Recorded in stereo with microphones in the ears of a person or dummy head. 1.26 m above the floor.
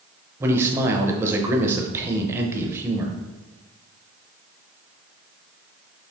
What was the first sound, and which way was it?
A man speaking, 15° right (ahead or behind).